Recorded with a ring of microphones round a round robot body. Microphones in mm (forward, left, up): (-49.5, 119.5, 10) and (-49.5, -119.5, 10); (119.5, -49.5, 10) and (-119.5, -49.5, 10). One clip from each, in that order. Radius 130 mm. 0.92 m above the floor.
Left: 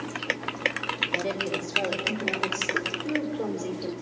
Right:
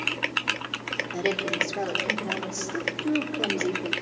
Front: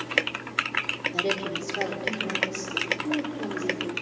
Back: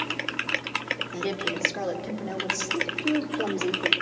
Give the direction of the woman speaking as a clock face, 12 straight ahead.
3 o'clock.